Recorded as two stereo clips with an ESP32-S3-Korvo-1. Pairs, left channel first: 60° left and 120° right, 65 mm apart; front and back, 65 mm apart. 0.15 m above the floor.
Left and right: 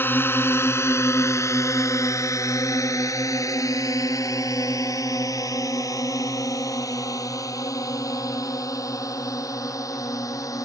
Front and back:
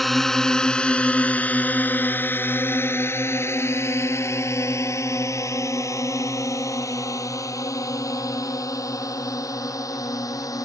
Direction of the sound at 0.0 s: 85° left.